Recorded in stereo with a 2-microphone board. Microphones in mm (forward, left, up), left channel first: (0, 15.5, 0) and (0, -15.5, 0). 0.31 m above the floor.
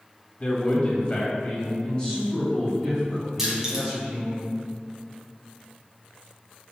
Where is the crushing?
10° right (ahead or behind), 2.5 m.